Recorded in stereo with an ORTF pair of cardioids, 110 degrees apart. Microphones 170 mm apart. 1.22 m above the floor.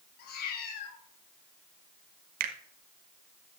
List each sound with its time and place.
0.2 s a cat meowing: 70° left, 3 m
2.4 s a finger snap: 55° right, 1.4 m